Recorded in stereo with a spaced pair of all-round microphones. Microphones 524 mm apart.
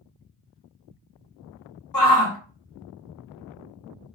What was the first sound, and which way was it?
A shout, 40° left (ahead or behind).